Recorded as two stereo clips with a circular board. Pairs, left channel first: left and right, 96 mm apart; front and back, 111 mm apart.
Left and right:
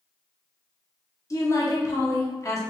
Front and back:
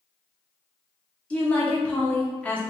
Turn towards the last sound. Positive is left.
turn(degrees=70)